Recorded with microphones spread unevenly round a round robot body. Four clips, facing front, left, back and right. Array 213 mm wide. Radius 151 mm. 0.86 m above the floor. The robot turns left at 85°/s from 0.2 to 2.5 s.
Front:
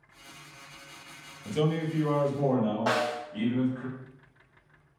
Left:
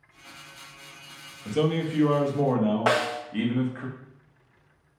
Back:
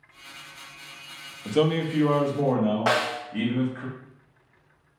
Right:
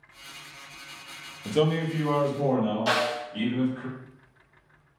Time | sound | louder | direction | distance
1.4 | a man speaking | right 1 dB, back 5 dB | 145° right | 0.7 m
2.9 | a snare drum | left 2 dB, back 3 dB | 115° left | 0.5 m